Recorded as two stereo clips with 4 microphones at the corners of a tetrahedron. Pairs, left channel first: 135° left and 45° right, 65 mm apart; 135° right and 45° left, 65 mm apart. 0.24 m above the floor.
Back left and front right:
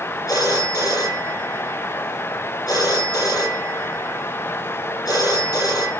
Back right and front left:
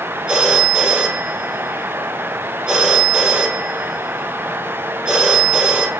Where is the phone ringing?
120° left, 4 m.